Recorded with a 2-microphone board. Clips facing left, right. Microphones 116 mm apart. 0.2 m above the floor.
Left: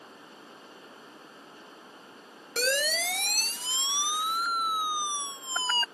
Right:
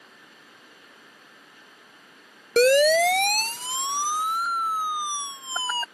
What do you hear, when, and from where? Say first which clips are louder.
2.6 s a siren: right 14 dB; 70° right (ahead or behind); by 5.8 s 10° right (ahead or behind)